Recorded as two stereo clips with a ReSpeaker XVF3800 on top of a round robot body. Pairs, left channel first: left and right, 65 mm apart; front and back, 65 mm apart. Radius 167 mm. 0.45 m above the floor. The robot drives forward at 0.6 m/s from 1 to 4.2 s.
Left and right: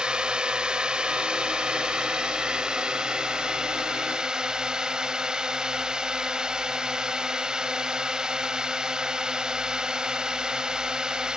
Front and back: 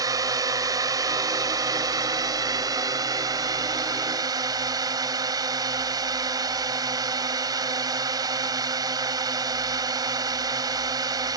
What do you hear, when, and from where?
0.0 s a drone: 165° right; by 11.4 s 170° right